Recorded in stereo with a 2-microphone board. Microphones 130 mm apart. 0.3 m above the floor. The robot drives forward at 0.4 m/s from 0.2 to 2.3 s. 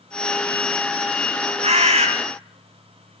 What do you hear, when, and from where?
1.6 s a bird: 60° right (ahead or behind), 2.5 m; by 2.1 s 55° right (ahead or behind), 2.5 m